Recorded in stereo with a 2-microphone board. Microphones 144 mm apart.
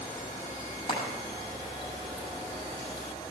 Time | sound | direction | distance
0.9 | frying | 35° left (ahead or behind) | 6.5 m